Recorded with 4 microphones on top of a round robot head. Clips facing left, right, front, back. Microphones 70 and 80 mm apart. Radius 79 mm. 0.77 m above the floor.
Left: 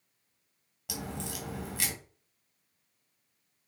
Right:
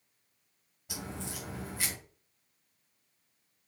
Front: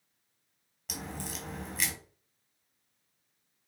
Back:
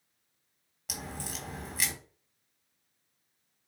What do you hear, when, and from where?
0.9 s a crack: 100° left, 3.5 m